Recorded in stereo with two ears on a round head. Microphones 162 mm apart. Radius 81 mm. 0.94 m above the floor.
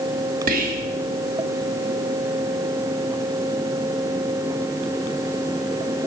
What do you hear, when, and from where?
0.5 s whispering: 50° right (ahead or behind), 1.1 m